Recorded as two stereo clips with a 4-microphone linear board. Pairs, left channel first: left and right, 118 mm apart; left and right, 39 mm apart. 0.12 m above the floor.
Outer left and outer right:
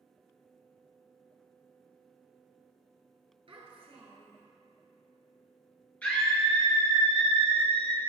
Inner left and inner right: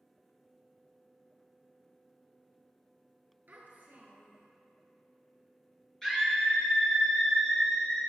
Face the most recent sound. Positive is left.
turn(degrees=10)  # may be behind; listen again after turning